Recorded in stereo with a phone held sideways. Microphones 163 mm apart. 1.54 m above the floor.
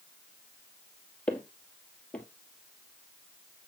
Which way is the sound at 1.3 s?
5° left (ahead or behind).